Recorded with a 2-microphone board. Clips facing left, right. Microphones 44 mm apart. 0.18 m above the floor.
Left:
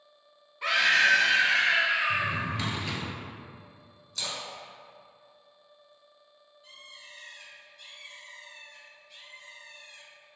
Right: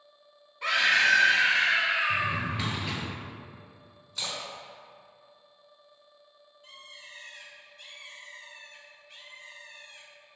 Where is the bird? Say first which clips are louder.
Right 1 dB; 45° right (ahead or behind), 1.4 m.